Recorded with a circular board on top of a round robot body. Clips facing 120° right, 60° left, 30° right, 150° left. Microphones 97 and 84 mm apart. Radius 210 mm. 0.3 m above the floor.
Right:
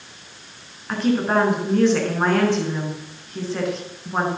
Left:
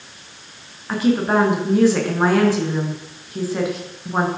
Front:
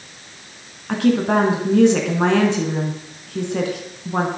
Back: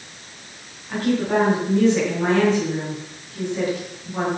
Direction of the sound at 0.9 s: 25° right.